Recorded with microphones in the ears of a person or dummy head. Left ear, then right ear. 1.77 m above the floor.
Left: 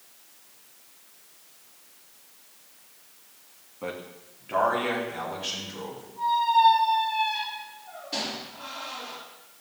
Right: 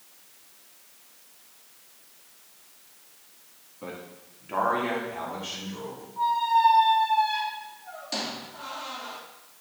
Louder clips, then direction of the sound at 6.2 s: Left 1 dB; 55° right (ahead or behind).